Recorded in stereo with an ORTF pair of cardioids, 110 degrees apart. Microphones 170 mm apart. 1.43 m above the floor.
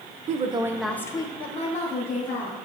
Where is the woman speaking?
45° right, 0.6 m; by 2.6 s 55° left, 1.7 m.